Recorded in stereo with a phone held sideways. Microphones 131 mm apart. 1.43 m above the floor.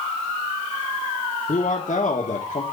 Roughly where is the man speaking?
Left.